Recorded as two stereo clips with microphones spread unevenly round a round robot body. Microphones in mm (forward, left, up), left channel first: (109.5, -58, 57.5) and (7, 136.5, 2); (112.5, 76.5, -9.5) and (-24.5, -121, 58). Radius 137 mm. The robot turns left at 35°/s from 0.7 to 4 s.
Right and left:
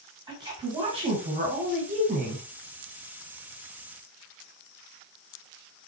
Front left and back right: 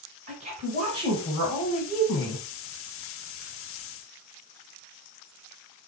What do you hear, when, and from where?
0.3 s a woman speaking: 165° left, 1.9 m; by 2.4 s 105° left, 1.9 m